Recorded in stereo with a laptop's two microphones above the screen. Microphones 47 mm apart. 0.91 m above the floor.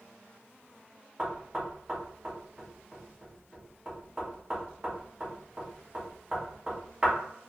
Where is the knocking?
20° right (ahead or behind), 1.0 m.